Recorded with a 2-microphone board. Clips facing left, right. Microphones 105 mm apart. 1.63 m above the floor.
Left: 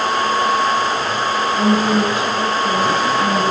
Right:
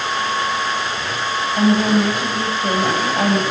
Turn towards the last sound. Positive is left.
turn(degrees=-55)  # may be behind; listen again after turning